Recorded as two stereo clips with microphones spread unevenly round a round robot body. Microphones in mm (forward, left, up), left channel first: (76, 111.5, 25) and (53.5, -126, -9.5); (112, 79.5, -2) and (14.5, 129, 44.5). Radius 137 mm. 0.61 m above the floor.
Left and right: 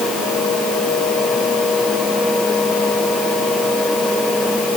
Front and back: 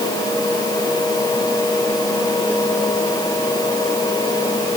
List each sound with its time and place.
Only background noise.